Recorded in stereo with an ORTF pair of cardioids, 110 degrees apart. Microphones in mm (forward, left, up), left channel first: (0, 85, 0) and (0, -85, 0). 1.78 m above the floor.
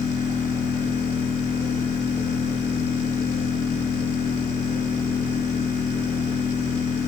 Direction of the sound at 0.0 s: 45° left.